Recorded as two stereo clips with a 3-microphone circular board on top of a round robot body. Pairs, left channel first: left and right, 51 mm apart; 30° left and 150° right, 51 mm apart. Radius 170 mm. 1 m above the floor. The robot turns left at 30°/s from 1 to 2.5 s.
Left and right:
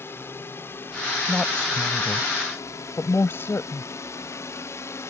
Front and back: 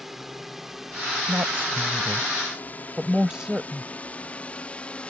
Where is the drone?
125° left; by 5.1 s 95° left.